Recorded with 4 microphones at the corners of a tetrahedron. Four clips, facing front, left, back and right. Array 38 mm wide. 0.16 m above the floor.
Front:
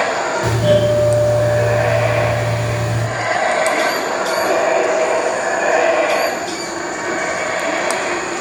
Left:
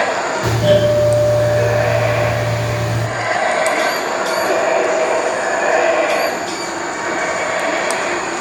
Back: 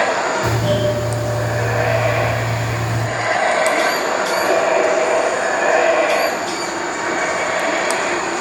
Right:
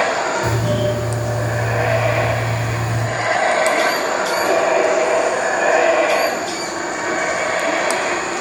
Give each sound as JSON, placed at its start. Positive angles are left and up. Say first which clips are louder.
{"t": 0.4, "sound": "a doorbell", "louder": "left 6 dB, front 4 dB", "azimuth_deg": 75, "distance_m": 4.0}